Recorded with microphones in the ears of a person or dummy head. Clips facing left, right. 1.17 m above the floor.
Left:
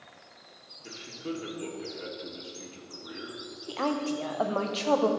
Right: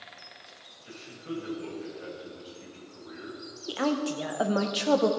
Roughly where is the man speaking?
Left.